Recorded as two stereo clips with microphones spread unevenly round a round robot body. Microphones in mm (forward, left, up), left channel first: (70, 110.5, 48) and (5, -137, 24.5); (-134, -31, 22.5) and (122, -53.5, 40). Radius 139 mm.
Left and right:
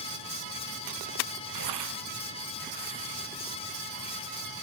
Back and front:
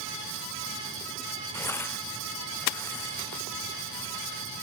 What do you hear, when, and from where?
1.5 s tearing paper: 105° right